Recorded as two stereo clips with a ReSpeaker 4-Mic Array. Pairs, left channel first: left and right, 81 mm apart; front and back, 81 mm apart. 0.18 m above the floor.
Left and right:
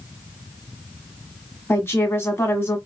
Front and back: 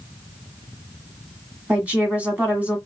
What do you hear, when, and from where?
1.7 s a woman speaking: 120° left, 1.6 m